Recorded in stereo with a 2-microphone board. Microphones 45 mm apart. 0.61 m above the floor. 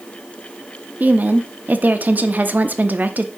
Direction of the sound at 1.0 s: 40° right (ahead or behind).